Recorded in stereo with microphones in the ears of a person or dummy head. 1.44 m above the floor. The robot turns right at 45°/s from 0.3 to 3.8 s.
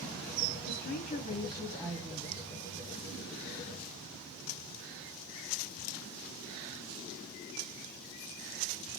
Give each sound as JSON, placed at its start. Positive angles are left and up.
{"t": 0.7, "sound": "a woman speaking", "azimuth_deg": 125, "distance_m": 0.6}